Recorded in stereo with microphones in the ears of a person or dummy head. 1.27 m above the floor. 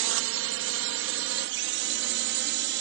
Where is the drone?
60° right (ahead or behind); by 2.8 s 55° right (ahead or behind).